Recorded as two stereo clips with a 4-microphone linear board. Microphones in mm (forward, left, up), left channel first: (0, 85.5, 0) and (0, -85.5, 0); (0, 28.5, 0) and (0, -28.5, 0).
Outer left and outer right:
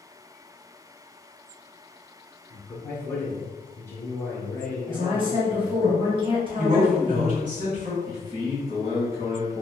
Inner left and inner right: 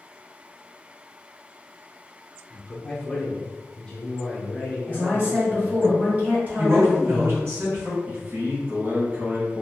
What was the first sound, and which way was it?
A man speaking, 15° left (ahead or behind).